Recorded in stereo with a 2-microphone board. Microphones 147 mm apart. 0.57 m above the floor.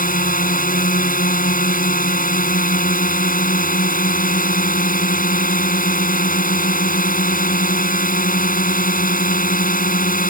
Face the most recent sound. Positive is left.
turn(degrees=70)  # may be behind; listen again after turning